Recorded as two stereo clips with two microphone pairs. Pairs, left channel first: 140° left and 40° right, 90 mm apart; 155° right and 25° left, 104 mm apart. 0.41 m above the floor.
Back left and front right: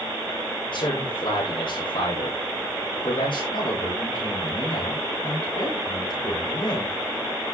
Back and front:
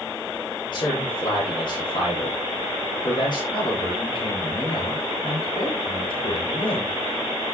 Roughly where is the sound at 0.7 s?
Behind.